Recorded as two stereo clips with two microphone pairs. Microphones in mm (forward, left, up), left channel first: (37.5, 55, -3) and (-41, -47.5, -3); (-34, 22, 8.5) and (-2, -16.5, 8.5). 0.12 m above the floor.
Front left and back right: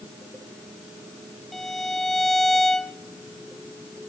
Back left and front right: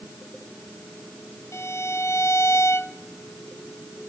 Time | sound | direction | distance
1.5 | a violin | 140° left | 1.0 m